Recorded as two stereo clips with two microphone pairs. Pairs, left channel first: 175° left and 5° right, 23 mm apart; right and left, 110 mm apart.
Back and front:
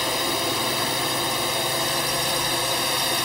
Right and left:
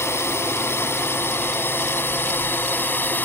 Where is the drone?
80° right; by 3.2 s 70° right.